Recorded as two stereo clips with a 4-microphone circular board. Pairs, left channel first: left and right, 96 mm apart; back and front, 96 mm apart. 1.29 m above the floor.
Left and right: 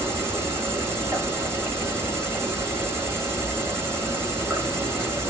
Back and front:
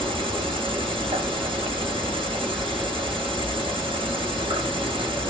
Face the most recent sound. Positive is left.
turn(degrees=-25)